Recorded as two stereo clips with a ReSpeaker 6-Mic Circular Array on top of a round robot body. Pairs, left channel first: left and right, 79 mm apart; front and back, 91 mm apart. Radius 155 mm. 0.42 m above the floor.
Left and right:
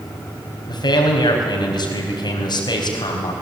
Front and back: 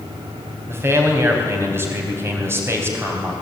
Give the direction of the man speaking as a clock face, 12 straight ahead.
8 o'clock.